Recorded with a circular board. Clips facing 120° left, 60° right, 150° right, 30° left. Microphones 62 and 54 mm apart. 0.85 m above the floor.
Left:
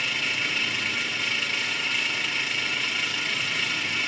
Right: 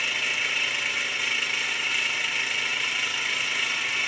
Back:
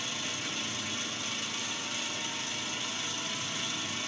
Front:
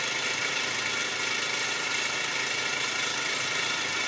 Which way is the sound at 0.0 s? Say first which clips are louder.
Even, front 7 dB; 25° left.